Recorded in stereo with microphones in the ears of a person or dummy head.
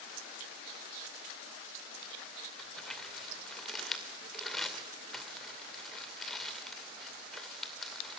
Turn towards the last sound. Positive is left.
turn(degrees=5)  # may be behind; listen again after turning